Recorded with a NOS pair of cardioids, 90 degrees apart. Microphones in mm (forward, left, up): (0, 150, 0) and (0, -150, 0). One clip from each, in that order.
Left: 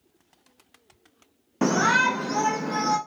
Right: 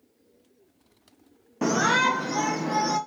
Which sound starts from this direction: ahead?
A shout, at 1.6 s.